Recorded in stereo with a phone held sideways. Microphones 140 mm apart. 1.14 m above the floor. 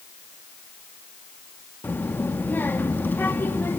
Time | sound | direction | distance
1.8 | a child speaking | 15° left (ahead or behind) | 1.2 m